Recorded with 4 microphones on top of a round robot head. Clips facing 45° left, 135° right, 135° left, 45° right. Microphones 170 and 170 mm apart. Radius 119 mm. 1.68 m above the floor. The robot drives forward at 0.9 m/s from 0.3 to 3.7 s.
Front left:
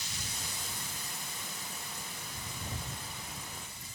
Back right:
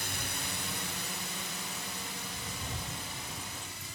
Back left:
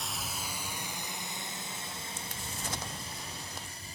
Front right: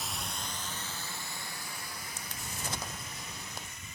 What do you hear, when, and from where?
0.0 s a drone: 135° right; by 4.0 s 165° right